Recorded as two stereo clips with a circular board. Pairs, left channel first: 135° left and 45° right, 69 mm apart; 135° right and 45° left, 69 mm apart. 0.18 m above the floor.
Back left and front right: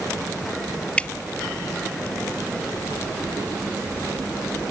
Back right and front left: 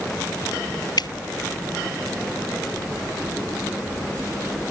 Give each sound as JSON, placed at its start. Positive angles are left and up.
{"t": 1.0, "sound": "dripping", "azimuth_deg": -150}